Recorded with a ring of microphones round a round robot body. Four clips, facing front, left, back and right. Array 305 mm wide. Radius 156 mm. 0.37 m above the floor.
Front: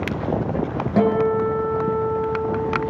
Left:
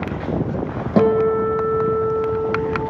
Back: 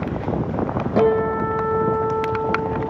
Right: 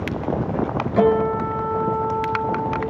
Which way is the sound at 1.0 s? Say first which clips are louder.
Left 3 dB, even; 90° left.